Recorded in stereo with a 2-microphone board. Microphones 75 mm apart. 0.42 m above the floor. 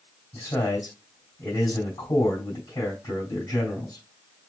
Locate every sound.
0.3 s a man speaking: 55° left (ahead or behind), 3 m